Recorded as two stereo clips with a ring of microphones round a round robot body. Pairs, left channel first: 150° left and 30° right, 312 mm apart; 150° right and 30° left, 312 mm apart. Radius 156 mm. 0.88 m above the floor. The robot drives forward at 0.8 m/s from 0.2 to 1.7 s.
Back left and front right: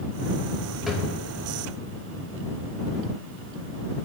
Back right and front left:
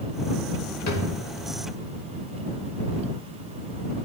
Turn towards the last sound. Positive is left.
turn(degrees=-145)